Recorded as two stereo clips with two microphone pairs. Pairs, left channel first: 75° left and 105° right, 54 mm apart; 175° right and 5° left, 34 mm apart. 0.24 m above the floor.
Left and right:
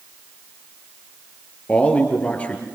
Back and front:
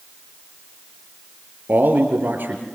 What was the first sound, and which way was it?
A man speaking, 10° left.